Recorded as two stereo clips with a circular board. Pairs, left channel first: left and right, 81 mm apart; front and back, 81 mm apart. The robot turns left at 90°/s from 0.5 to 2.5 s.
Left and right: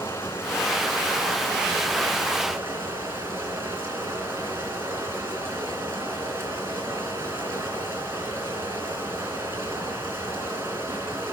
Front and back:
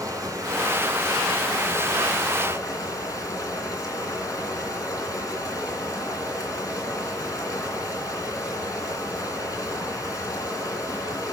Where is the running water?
145° left, 2.5 m; by 11.3 s 35° right, 2.5 m.